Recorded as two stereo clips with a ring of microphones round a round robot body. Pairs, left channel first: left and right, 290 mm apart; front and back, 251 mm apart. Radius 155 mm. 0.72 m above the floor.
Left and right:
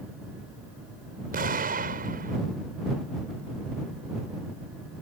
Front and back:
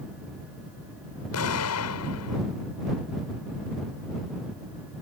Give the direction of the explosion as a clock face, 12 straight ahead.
1 o'clock.